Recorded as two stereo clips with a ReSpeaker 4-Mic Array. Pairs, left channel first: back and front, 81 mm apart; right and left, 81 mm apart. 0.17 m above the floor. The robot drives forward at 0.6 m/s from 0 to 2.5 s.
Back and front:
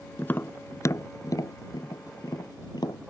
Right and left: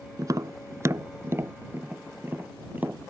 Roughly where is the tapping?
Behind left.